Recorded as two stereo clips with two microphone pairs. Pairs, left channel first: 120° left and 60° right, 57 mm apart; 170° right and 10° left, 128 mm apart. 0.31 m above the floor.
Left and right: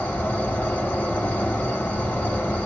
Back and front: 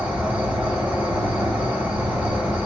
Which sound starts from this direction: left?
An insect, at 0.0 s.